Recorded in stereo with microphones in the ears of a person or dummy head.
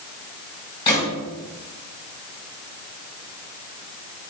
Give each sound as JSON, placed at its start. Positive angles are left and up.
{"t": 0.9, "sound": "a gunshot", "side_deg": 20, "distance_m": 1.6}